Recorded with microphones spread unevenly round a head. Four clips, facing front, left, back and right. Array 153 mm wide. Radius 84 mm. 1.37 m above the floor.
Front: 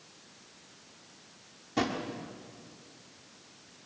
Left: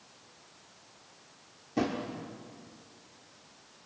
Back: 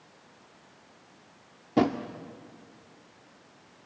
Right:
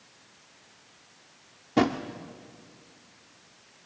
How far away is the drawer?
About 1.2 m.